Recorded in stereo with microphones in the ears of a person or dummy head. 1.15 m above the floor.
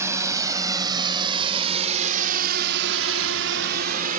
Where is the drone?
20° right (ahead or behind); by 4.2 s 45° right (ahead or behind).